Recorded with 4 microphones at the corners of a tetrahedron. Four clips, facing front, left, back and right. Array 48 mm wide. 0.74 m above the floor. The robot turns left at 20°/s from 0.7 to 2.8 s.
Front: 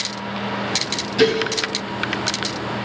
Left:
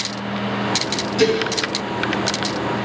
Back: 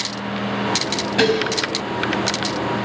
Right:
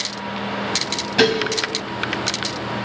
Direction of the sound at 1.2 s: 125° right.